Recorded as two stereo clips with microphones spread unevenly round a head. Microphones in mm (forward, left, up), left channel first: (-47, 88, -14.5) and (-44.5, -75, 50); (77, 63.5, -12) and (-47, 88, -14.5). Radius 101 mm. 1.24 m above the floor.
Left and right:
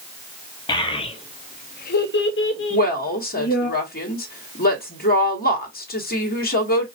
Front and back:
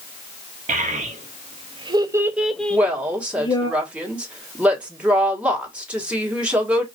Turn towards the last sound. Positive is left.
turn(degrees=90)